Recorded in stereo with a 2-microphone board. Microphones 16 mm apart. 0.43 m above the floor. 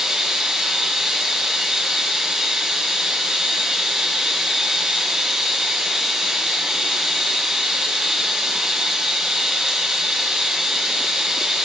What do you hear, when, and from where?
0.0 s running water: 70° right (ahead or behind), 1.2 m